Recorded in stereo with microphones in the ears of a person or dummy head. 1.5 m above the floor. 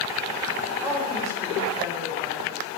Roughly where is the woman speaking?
Centre.